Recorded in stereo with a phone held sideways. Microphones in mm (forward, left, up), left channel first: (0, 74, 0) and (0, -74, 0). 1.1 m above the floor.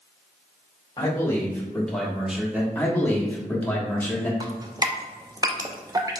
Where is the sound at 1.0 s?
25° left (ahead or behind), 1.6 m; by 2.6 s 10° right (ahead or behind), 1.4 m.